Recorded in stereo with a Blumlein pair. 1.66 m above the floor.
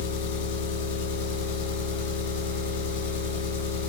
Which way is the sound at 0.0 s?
50° left.